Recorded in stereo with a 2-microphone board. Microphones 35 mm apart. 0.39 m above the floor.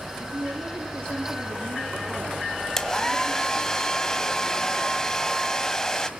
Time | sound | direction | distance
0.2 | a woman speaking | 70° right (ahead or behind) | 8 m
2.8 | a hair dryer | 15° left (ahead or behind) | 1.2 m